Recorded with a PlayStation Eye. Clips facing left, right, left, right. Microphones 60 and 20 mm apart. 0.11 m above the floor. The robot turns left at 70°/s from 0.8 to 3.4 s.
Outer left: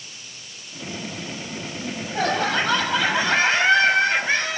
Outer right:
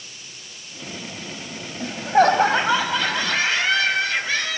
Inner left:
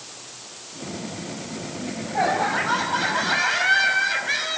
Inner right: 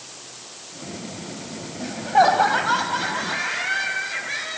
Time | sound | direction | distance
1.8 | laughter | 100° right | 5.5 m